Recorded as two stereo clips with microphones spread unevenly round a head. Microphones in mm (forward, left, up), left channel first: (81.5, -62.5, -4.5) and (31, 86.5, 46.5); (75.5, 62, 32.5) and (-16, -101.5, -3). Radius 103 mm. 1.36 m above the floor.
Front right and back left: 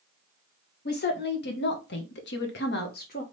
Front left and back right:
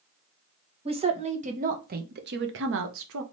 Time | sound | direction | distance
0.8 | a woman speaking | 60° right | 1.5 m